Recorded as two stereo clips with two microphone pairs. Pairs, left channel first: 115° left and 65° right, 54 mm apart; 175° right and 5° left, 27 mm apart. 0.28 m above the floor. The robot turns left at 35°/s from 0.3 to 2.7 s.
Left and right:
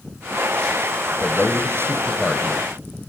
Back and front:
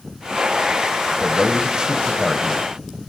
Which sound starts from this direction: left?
A man speaking, at 1.2 s.